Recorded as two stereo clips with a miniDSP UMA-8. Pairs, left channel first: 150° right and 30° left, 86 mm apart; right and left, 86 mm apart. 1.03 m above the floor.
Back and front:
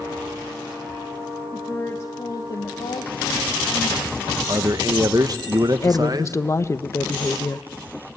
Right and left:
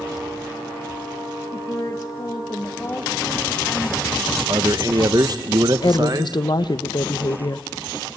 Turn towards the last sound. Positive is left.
turn(degrees=-100)